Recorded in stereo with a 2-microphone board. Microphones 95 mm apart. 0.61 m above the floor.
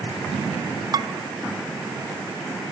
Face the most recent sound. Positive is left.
turn(degrees=-50)  # may be behind; listen again after turning